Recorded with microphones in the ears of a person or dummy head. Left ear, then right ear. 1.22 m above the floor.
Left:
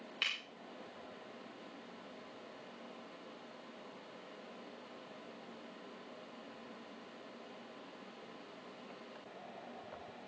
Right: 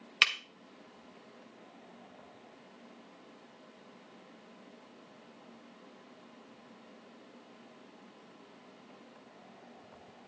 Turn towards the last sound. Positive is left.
turn(degrees=-40)  # may be behind; listen again after turning